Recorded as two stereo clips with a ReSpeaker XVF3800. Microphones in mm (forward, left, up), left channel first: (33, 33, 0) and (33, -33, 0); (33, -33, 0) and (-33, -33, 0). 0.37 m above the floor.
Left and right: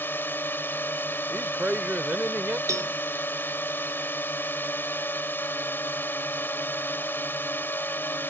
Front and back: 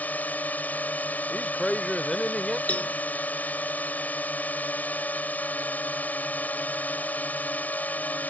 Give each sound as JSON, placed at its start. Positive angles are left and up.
{"t": 0.0, "sound": "a drone", "azimuth_deg": 50}
{"t": 1.3, "sound": "a man speaking", "azimuth_deg": -70}
{"t": 2.7, "sound": "a cowbell", "azimuth_deg": -65}